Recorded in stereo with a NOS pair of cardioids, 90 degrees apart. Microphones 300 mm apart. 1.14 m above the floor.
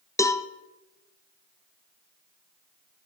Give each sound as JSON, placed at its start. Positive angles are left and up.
{"t": 0.2, "sound": "a cowbell", "azimuth_deg": 10, "distance_m": 0.5}